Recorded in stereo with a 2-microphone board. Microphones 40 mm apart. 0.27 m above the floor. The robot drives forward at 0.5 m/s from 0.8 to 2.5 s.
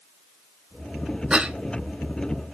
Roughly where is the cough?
Right.